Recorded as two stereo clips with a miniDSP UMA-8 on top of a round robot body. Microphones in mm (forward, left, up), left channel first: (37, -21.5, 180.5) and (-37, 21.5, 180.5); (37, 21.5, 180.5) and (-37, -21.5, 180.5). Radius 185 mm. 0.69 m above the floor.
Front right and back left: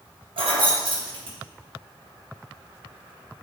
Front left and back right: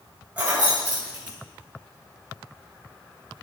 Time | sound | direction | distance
0.4 | keys jangling | 135° left | 3 m